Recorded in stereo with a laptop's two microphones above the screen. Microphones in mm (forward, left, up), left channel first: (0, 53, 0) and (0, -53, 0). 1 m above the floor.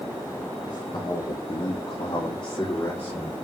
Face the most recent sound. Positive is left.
turn(degrees=50)  # may be behind; listen again after turning